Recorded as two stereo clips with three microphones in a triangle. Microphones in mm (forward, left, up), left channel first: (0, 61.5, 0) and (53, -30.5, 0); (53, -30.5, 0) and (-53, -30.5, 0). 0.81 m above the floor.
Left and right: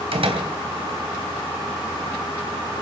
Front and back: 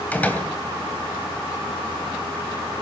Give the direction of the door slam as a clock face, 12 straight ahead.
2 o'clock.